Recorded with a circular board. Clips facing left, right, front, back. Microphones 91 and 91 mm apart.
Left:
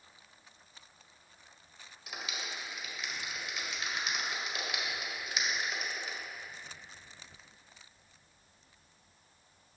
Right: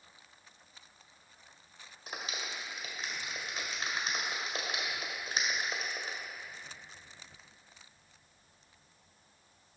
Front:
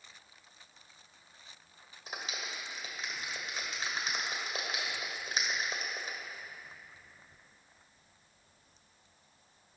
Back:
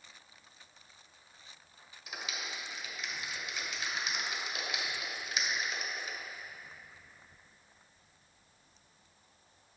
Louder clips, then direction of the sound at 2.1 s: Right 1 dB, front 1 dB; 45° right.